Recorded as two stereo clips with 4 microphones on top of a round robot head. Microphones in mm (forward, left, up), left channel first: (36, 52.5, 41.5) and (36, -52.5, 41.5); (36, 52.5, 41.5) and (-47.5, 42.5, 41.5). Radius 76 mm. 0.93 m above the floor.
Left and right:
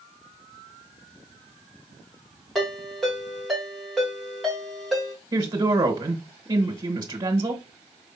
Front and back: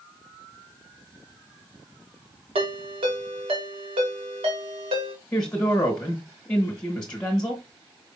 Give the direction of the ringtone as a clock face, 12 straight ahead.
6 o'clock.